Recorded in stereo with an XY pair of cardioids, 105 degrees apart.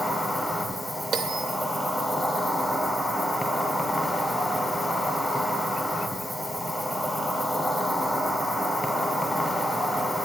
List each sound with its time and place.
0.0 s an insect: 10° left, 0.8 m
1.1 s a bell: 60° right, 0.5 m